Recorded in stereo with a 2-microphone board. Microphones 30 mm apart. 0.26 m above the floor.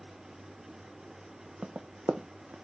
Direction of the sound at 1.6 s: 65° right (ahead or behind).